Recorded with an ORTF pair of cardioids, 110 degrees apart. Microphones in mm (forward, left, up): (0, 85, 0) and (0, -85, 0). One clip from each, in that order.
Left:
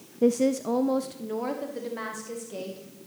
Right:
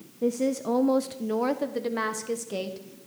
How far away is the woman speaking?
About 0.6 m.